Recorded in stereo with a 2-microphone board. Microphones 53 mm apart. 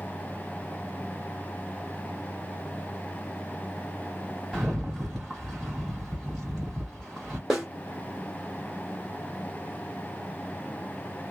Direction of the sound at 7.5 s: 5° right (ahead or behind).